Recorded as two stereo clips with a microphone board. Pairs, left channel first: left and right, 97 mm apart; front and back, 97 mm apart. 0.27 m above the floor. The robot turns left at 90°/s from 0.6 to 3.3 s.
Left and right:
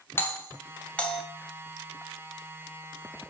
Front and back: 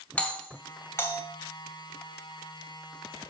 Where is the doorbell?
60° left, 2.5 m; by 1.2 s 5° left, 2.5 m.